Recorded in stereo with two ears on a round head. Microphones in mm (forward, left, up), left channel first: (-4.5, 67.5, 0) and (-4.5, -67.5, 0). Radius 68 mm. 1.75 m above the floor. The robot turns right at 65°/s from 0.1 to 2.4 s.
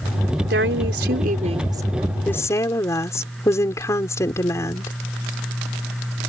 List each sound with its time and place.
0.5 s a woman speaking: 105° right; by 4.9 s 20° left